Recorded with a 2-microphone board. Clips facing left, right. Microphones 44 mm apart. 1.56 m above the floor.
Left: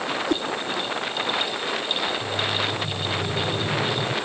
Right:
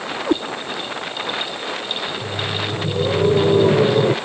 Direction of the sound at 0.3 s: 25° right (ahead or behind).